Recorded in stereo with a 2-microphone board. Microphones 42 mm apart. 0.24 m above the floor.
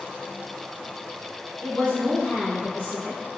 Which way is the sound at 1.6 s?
45° left (ahead or behind).